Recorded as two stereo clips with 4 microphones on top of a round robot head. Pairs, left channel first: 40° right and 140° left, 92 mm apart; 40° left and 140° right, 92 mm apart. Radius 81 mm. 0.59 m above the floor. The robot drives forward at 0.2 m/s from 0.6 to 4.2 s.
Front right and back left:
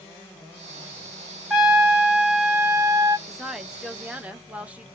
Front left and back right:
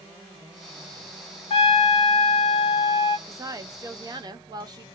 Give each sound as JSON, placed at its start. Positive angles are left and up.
{"t": 1.5, "sound": "a trumpet", "azimuth_deg": 60, "distance_m": 1.2}
{"t": 3.3, "sound": "a woman speaking", "azimuth_deg": -135, "distance_m": 0.6}